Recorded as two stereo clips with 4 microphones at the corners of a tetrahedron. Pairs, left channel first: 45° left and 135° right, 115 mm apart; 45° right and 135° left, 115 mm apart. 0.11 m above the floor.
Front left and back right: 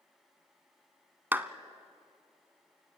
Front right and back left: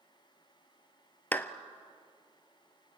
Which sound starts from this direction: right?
A clap, at 1.3 s.